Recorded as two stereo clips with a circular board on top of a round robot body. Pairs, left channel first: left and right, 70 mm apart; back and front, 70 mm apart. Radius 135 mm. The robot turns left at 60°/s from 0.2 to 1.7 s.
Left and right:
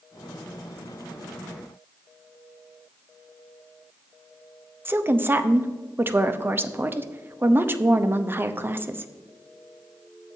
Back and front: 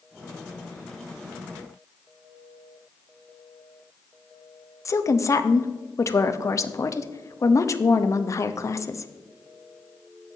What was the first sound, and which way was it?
A woman speaking, 145° right.